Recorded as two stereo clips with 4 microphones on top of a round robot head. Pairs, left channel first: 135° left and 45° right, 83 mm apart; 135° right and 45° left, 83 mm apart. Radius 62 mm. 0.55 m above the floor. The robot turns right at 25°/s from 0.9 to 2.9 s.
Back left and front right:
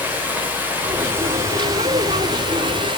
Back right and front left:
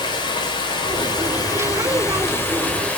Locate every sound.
0.0 s running water: 115° right, 2.5 m; by 3.0 s 65° right, 2.5 m